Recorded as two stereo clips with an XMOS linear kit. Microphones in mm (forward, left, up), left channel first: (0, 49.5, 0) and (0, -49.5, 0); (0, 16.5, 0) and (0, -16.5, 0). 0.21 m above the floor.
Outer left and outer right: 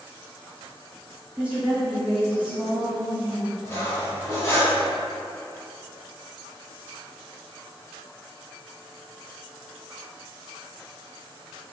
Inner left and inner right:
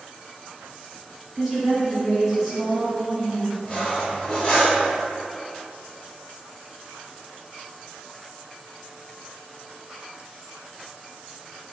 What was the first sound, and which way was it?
A woman speaking, 15° right (ahead or behind).